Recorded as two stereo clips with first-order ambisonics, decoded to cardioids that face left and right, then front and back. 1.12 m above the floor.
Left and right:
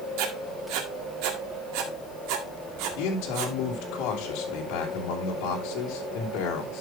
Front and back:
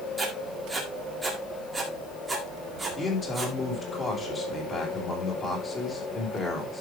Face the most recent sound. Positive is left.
turn(degrees=70)